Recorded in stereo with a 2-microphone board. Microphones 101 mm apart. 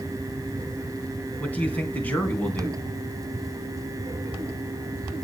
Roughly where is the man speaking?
Centre.